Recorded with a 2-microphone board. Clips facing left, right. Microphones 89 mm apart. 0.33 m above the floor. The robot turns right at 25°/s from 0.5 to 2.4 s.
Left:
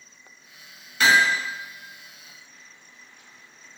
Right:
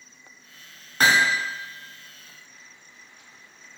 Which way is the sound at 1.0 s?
40° right (ahead or behind).